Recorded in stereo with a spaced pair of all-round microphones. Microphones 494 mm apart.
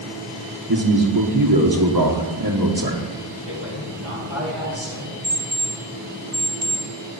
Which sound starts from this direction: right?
A man speaking, at 0.7 s.